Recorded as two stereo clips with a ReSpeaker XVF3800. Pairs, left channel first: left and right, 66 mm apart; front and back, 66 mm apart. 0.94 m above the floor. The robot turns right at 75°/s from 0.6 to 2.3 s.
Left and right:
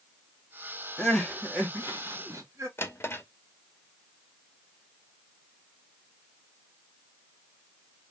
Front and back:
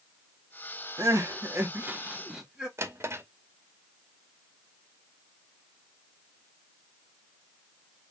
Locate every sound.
1.0 s crying: 160° left, 1.3 m; by 2.7 s 100° right, 1.3 m
2.8 s a drawer: 135° left, 0.8 m